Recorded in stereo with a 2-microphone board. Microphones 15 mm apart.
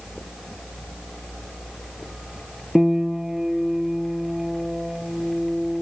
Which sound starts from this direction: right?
A piano, at 2.8 s.